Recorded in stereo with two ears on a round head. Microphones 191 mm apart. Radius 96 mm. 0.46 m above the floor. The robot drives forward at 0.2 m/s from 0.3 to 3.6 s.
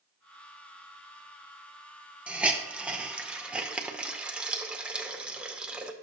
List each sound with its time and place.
2.3 s a hiss: 5° right (ahead or behind), 0.7 m